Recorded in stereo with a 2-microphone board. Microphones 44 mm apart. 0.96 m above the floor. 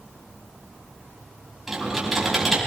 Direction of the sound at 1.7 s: 5° right (ahead or behind).